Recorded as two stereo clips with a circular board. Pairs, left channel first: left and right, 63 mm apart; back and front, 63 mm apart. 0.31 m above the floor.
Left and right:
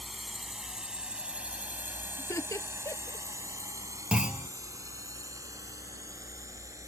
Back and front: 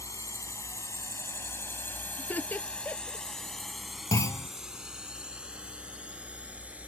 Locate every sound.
0.0 s a drone: 175° left; by 6.9 s 65° right
2.2 s laughter: 120° left
4.1 s a clunk: 165° right